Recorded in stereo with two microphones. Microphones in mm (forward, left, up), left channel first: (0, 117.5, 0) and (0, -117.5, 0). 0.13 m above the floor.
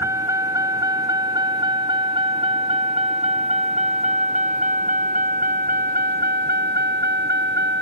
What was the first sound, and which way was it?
A vehicle, 10° right (ahead or behind).